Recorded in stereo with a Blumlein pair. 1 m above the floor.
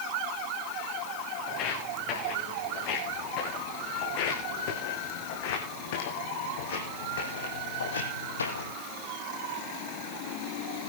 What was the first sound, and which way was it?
Footsteps, 40° left.